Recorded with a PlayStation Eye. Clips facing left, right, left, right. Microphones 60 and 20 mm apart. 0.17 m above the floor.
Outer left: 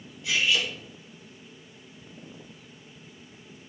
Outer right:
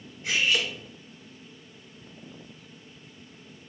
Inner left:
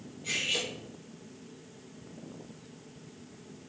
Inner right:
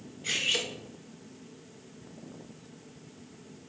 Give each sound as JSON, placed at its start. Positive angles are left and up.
{"t": 0.2, "sound": "cutlery clinking", "side_deg": -40, "distance_m": 1.1}